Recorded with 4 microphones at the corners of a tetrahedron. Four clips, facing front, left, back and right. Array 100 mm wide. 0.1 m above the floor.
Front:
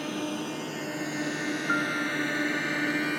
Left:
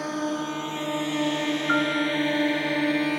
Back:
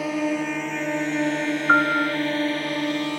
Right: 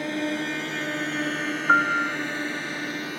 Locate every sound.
0.0 s a drone: 165° right; by 3.2 s 115° left
1.7 s a piano: 140° right